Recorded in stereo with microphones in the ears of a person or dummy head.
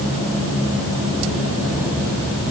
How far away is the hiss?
No hiss in this recording.